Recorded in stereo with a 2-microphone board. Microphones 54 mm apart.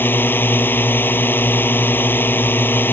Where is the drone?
40° left (ahead or behind).